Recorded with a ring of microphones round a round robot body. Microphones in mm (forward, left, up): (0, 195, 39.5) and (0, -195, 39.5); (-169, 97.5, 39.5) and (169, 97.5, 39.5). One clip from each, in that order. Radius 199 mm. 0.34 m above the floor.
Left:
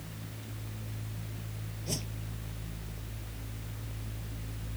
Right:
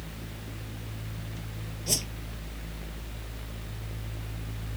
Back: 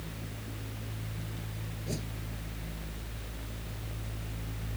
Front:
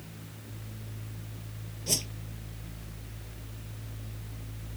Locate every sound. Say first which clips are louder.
1.9 s a whoosh: right 8 dB, front 10 dB; 35° right